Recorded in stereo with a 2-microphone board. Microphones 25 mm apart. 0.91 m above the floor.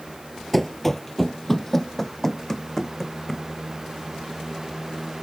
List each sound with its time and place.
0.5 s running footsteps: 5° left (ahead or behind); by 3.5 s 20° left (ahead or behind)